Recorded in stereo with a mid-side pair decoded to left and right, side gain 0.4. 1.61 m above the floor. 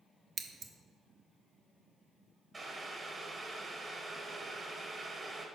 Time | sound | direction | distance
0.4 | scissors | 55° right | 0.7 m
2.5 | boiling | 35° right | 1.5 m